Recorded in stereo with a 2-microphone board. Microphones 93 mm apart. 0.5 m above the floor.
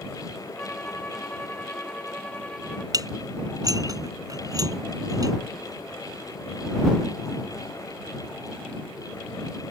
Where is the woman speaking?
No woman speaking in this recording.